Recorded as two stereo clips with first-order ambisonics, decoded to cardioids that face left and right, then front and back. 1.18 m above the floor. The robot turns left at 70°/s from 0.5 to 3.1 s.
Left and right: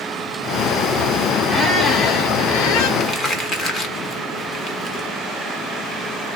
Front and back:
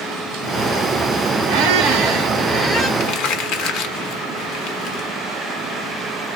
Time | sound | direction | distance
1.5 | a squeak | 175° left | 0.9 m
3.0 | crumpling | 40° left | 1.0 m